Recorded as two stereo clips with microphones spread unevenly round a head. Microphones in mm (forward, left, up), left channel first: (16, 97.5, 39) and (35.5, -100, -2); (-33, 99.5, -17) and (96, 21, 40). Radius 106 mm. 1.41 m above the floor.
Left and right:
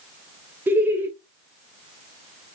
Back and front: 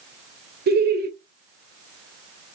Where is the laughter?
5° right, 1.4 m.